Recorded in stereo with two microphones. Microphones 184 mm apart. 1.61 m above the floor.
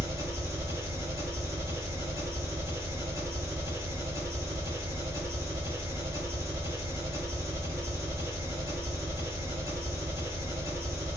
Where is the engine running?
15° right (ahead or behind), 1.2 m.